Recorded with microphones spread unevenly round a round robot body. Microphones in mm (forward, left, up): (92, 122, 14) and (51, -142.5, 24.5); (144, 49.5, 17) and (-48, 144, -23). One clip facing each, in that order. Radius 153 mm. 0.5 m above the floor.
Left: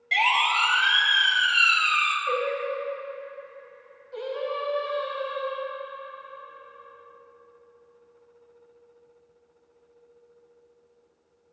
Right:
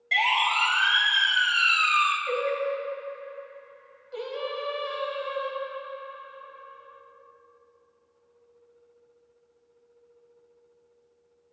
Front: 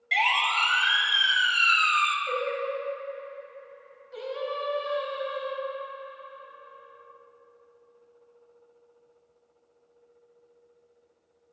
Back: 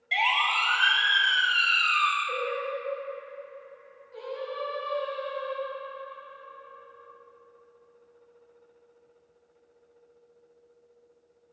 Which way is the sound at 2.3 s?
60° right.